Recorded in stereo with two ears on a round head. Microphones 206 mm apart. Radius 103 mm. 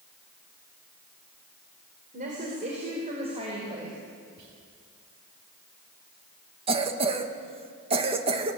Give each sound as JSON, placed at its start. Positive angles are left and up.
{"t": 2.1, "sound": "a woman speaking", "side_deg": -35, "distance_m": 4.0}
{"t": 4.4, "sound": "whispering", "side_deg": -85, "distance_m": 9.0}
{"t": 6.7, "sound": "a cough", "side_deg": -25, "distance_m": 1.8}